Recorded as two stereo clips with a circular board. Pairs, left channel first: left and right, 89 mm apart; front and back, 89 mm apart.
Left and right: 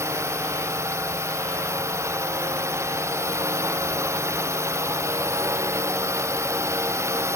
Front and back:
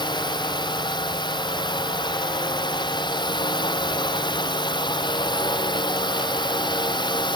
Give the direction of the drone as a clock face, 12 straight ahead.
1 o'clock.